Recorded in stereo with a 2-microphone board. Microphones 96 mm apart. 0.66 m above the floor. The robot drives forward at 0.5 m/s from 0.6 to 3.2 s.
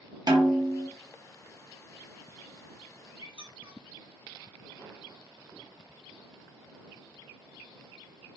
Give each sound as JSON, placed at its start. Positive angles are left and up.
{"t": 0.3, "sound": "a snare drum", "side_deg": -45, "distance_m": 0.7}
{"t": 3.2, "sound": "a squeak", "side_deg": 60, "distance_m": 0.7}